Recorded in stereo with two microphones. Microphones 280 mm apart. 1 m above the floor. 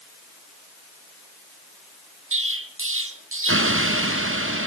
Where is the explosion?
50° right (ahead or behind), 0.6 m.